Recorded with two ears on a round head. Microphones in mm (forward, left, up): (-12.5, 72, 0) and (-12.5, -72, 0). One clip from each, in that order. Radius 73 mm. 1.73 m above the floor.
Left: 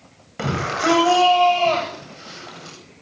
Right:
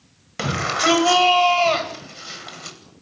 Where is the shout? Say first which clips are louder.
Right 2 dB; 60° right (ahead or behind), 9.5 m; by 2.8 s 50° right (ahead or behind), 10 m.